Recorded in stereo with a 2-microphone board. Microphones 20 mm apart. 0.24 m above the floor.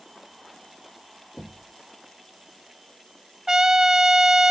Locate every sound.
1.4 s knocking: 40° left (ahead or behind), 0.9 m
3.5 s a trumpet: 25° right (ahead or behind), 0.7 m